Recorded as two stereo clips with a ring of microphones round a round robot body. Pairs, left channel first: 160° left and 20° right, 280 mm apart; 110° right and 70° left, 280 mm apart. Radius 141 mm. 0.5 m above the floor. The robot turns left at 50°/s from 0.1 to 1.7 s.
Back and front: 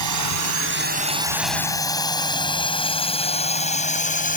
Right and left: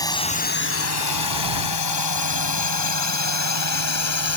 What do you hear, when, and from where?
0.0 s a drone: 35° right; by 4.4 s 140° right